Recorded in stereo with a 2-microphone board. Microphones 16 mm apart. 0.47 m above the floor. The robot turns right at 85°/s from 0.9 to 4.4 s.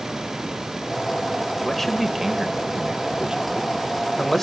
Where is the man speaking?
155° left, 2 m; by 4.4 s 30° left, 2 m.